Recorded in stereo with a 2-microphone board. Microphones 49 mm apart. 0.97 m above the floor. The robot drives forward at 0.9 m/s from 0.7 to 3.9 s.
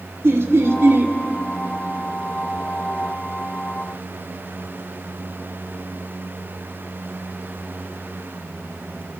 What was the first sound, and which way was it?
Laughter, 55° right (ahead or behind).